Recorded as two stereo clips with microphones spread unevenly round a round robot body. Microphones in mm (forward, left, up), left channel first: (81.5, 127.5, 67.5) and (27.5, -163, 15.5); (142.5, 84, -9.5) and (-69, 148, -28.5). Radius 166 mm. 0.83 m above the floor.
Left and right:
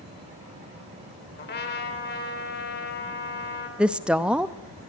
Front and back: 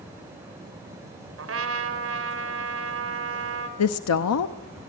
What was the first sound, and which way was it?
A trumpet, 145° left.